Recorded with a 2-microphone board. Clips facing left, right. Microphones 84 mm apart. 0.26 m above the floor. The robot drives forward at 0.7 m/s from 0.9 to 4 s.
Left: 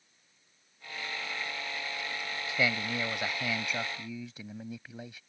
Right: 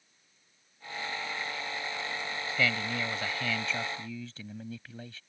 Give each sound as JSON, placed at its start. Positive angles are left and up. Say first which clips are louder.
{"t": 2.5, "sound": "a man speaking", "louder": "even", "side_deg": 20}